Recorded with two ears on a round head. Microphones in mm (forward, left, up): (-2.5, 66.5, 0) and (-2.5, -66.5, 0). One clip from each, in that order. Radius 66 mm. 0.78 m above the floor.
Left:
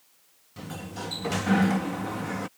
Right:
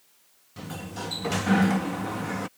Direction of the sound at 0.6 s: 5° right (ahead or behind).